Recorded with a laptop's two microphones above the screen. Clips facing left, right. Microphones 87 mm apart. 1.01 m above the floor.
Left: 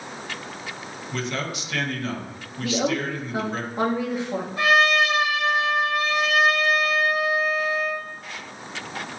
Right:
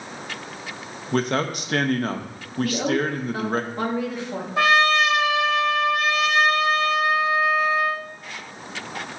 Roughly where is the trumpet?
Right.